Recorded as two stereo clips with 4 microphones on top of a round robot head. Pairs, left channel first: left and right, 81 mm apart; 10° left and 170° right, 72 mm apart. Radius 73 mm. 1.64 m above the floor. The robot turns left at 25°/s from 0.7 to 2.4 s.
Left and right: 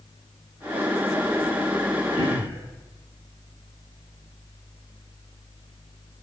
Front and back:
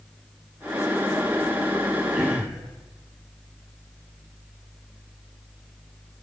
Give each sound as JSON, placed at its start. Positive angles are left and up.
{"t": 2.1, "sound": "throat clearing", "azimuth_deg": 110, "distance_m": 8.0}